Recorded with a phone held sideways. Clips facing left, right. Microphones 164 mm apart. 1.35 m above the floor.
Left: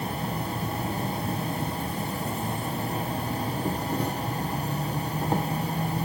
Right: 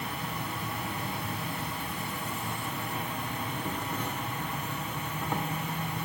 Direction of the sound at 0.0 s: 35° left (ahead or behind).